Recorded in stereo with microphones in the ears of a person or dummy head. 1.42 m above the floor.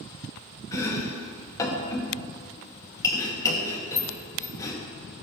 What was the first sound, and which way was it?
Chopping, 15° left (ahead or behind).